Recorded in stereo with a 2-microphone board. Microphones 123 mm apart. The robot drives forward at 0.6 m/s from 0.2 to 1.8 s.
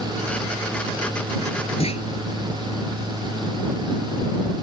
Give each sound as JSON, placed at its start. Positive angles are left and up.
{"t": 1.8, "sound": "a clunk", "side_deg": 55}